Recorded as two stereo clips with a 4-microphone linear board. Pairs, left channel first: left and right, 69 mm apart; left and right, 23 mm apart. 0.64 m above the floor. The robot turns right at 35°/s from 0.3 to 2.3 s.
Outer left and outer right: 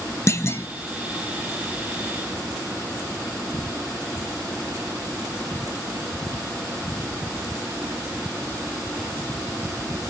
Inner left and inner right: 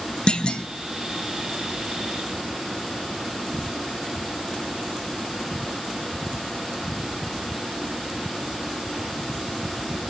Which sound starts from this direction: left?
A clunk, at 0.3 s.